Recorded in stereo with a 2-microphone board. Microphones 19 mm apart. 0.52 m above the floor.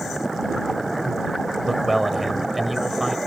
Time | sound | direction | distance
1.6 | a man speaking | 5° right (ahead or behind) | ?